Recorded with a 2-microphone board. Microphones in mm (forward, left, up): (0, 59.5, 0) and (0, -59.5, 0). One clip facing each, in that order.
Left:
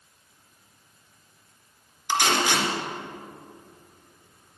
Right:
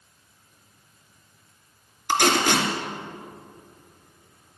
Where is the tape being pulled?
60° right (ahead or behind), 2.5 m.